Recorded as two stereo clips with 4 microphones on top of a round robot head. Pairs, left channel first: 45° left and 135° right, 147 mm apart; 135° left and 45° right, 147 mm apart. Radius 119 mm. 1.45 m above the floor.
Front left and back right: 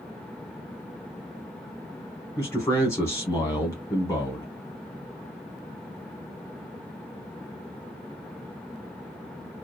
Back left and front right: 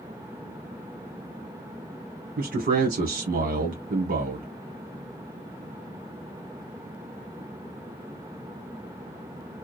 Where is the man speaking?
25° right, 1.0 m.